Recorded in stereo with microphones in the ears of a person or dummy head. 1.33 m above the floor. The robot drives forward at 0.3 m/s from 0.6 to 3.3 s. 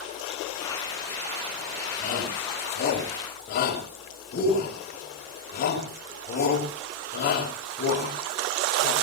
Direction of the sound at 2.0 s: 55° left (ahead or behind).